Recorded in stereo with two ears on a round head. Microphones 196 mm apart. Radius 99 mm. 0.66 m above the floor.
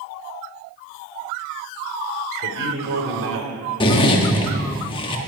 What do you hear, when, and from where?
2.4 s a man speaking: 60° right (ahead or behind), 3 m; by 3.5 s 65° right (ahead or behind), 3 m
3.8 s a zipper: 25° left (ahead or behind), 1.4 m